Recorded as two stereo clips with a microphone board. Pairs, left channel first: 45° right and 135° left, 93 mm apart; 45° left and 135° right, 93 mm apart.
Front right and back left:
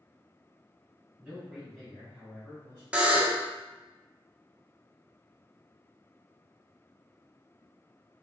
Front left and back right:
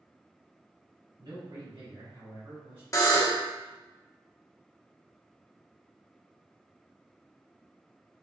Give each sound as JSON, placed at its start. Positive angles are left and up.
{"t": 1.2, "sound": "a man speaking", "azimuth_deg": -150, "distance_m": 1.8}
{"t": 2.9, "sound": "a buzzer", "azimuth_deg": 65, "distance_m": 0.7}